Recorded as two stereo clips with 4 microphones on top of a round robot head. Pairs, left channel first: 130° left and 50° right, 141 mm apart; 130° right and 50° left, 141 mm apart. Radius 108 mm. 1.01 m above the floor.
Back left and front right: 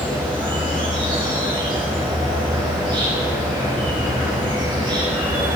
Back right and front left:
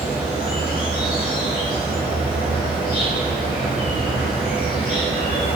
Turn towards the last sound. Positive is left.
turn(degrees=-110)